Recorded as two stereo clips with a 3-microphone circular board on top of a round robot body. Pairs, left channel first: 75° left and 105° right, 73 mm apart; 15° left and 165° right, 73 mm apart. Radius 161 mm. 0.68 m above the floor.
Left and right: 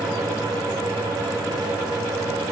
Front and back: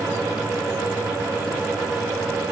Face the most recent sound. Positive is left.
No sound to turn to.